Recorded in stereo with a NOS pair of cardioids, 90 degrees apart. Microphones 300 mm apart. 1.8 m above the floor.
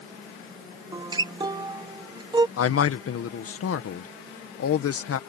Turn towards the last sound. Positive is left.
turn(degrees=55)